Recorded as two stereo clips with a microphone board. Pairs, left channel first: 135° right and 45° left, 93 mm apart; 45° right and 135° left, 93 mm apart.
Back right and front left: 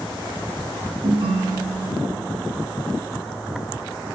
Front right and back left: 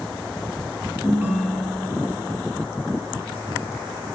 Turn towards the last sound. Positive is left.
turn(degrees=60)